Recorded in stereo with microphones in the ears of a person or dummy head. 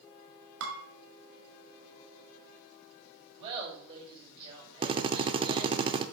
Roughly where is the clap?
No clap in this recording.